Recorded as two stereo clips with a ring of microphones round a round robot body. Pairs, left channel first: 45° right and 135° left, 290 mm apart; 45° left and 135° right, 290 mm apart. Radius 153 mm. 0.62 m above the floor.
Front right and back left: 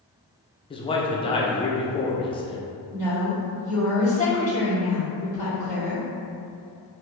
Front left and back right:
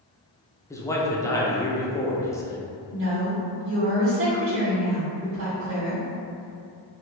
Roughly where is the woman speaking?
Right.